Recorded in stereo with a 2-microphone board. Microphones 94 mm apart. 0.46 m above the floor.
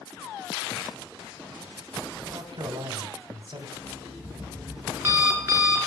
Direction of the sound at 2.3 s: 55° right (ahead or behind).